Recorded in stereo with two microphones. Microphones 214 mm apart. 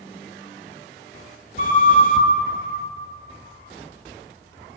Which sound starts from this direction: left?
A flute, at 1.6 s.